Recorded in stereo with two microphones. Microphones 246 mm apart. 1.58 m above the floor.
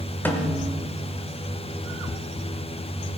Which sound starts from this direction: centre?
A snare drum, at 0.2 s.